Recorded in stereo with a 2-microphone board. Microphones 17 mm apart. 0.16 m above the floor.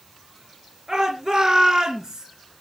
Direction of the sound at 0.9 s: 50° right (ahead or behind).